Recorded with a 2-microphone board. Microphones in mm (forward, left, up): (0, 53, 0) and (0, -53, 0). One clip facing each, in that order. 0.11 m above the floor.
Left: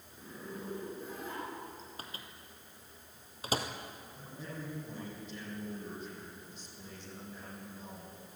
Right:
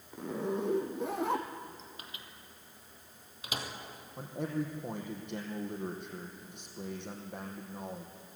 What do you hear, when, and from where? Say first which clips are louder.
0.1 s a zipper: right 11 dB; 75° right (ahead or behind), 2.5 m
2.0 s a microwave: left 2 dB; 40° left (ahead or behind), 2.5 m
4.2 s a man speaking: right 11 dB; 65° right (ahead or behind), 4.5 m